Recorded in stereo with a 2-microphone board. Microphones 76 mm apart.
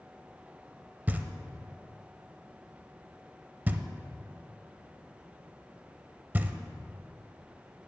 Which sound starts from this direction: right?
Knocking, at 1.1 s.